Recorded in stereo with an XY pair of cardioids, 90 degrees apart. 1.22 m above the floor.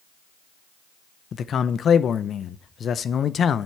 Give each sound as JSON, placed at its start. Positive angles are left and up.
{"t": 1.3, "sound": "a man speaking", "azimuth_deg": 60, "distance_m": 0.7}